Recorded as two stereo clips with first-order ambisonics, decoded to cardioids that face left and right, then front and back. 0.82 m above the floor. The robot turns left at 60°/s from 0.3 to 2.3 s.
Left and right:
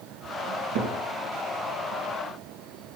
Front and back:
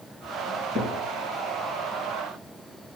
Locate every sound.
0.5 s a cupboard door: 100° right, 4 m; by 0.9 s 130° right, 4 m